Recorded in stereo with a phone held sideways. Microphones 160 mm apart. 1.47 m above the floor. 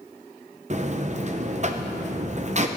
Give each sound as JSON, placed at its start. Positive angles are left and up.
{"t": 0.7, "sound": "a buzzer", "side_deg": -45, "distance_m": 0.7}